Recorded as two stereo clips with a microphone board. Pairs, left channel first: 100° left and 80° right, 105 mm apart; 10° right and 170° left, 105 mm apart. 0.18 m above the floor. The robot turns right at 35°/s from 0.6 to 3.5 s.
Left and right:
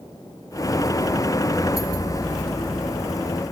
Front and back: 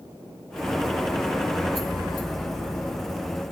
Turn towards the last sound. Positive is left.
No sound to turn to.